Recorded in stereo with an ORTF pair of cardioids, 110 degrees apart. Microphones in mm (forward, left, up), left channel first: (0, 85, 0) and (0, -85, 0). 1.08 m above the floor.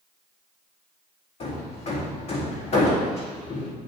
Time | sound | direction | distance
1.4 | hammering | 40° left | 2 m